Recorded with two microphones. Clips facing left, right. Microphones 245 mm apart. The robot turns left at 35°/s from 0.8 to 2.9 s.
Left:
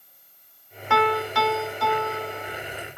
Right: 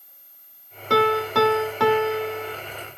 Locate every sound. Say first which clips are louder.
0.9 s a piano: right 4 dB; 40° right, 1.5 m; by 2.6 s 95° right, 1.5 m